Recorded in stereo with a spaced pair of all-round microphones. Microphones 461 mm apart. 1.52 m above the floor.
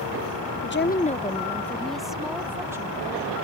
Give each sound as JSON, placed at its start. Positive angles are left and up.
{"t": 0.6, "sound": "a woman speaking", "side_deg": 30}